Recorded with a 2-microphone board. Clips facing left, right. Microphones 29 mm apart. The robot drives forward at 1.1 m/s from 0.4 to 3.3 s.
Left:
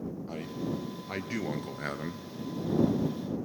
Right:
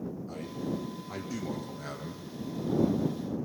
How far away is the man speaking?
About 2.5 m.